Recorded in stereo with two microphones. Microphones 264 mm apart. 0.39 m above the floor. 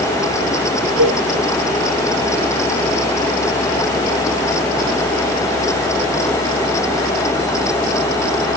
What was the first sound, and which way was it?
A cowbell, 75° right (ahead or behind).